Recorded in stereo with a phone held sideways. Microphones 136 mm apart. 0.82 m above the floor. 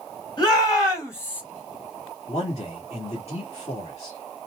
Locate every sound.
0.4 s a shout: 35° left (ahead or behind), 2.5 m; by 1.4 s 10° left (ahead or behind), 1.4 m
2.3 s a man speaking: 50° left (ahead or behind), 1.6 m